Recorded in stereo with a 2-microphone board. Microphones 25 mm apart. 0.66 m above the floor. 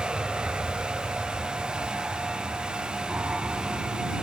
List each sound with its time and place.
0.0 s an aircraft: 40° right (ahead or behind); by 4.2 s 70° right (ahead or behind)